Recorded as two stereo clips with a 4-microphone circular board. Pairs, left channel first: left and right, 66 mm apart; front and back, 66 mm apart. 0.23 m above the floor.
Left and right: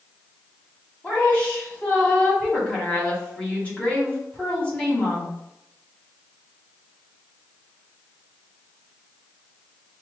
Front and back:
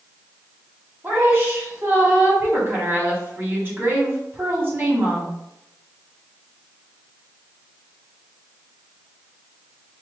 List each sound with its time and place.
1.0 s a woman speaking: 150° left, 1.8 m